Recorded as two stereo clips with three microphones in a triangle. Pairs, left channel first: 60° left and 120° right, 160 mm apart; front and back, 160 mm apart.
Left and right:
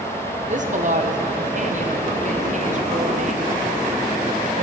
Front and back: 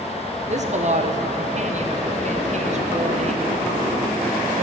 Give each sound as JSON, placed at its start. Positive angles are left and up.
{"t": 0.5, "sound": "a woman speaking", "azimuth_deg": -145, "distance_m": 0.8}